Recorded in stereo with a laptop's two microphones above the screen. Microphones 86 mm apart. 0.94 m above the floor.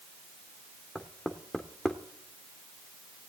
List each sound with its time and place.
0.9 s knocking: 10° left (ahead or behind), 1.9 m